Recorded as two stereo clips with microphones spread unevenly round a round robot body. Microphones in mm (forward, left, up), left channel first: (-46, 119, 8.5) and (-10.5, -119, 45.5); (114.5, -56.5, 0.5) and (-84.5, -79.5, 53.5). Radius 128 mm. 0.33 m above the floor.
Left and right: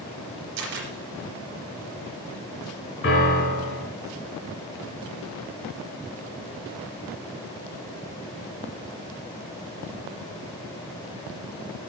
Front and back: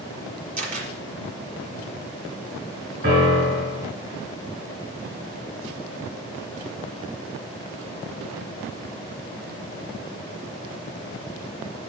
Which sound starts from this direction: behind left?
A piano, at 3.0 s.